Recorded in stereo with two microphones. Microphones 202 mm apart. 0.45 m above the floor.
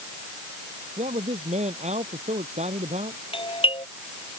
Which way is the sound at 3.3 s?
25° left (ahead or behind).